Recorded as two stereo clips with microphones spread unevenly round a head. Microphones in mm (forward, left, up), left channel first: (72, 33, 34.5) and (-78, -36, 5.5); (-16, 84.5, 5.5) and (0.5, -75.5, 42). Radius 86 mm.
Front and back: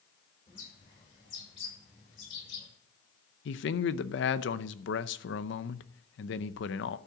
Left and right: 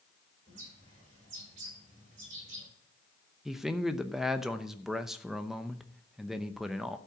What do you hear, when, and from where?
0.5 s a bird: 35° right, 6 m
3.5 s a man speaking: 5° left, 0.7 m